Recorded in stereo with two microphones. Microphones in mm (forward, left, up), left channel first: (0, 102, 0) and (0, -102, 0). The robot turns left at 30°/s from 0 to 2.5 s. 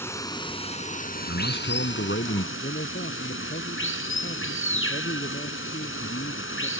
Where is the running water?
170° left; by 6.8 s 95° left.